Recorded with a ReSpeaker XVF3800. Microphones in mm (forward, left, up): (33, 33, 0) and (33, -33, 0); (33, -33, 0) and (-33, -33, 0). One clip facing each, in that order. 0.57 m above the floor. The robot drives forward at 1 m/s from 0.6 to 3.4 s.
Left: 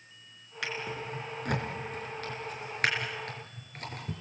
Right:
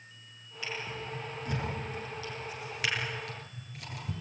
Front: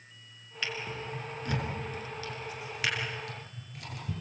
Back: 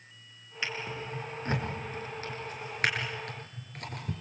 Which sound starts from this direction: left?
A drawer, at 0.6 s.